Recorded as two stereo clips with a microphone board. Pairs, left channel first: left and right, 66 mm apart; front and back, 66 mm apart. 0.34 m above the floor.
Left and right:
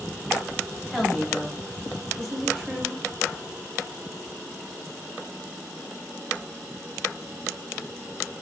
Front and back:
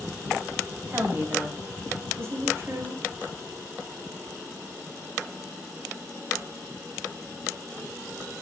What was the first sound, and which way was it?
A woman speaking, straight behind.